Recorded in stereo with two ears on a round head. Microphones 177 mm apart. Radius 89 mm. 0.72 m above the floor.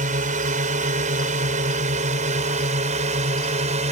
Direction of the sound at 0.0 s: 35° right (ahead or behind).